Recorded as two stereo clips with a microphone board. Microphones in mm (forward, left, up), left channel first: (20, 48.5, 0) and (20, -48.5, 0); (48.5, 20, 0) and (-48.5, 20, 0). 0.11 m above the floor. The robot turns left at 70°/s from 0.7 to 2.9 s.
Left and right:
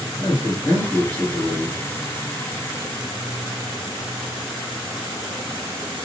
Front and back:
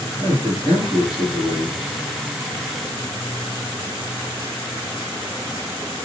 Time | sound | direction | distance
0.2 | a man speaking | 40° left | 2.5 m